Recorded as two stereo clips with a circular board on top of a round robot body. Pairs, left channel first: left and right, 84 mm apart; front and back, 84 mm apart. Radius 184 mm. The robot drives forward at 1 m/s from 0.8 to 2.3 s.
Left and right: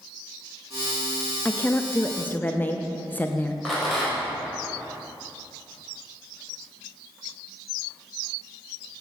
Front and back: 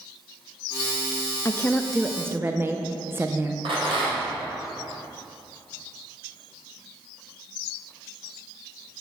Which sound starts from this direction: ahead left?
A woman speaking, at 1.4 s.